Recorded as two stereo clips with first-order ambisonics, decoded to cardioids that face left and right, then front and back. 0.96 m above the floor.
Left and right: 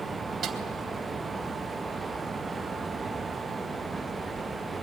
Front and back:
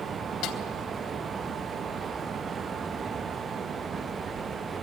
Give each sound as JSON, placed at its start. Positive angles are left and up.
{"t": 0.4, "sound": "a snare drum", "azimuth_deg": -20, "distance_m": 3.5}